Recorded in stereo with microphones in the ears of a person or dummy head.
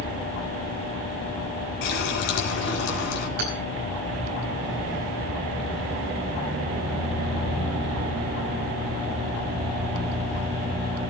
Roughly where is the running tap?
Left.